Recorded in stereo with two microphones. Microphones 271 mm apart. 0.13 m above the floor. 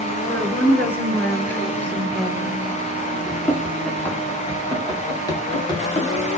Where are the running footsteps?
Centre (ahead or behind), 6 m; by 6.4 s 20° left (ahead or behind), 6.5 m.